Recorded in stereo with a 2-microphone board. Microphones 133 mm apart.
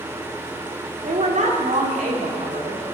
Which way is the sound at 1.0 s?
70° right (ahead or behind).